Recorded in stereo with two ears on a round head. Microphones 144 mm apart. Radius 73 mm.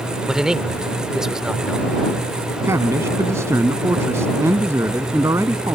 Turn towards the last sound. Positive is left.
turn(degrees=-15)  # may be behind; listen again after turning